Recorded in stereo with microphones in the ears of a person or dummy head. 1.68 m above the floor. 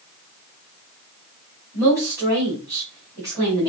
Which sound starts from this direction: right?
A woman speaking, at 1.7 s.